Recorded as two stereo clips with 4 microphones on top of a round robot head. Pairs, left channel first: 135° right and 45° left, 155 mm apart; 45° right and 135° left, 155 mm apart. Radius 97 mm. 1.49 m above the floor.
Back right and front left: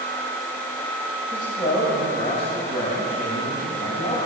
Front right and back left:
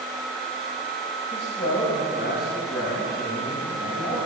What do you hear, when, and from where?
1.3 s a man speaking: 65° right, 6.5 m; by 4.2 s 80° right, 9 m